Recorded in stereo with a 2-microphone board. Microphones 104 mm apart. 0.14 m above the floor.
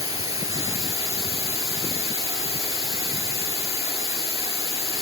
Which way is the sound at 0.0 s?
35° right (ahead or behind).